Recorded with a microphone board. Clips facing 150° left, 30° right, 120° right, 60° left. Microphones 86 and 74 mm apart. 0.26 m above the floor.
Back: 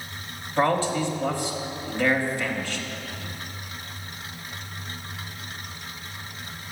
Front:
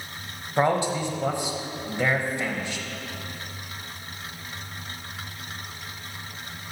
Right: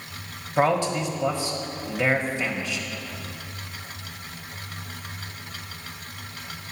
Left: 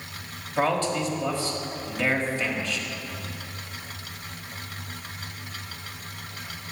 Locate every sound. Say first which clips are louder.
0.6 s a man speaking: even, right 2 dB; 75° right, 1.0 m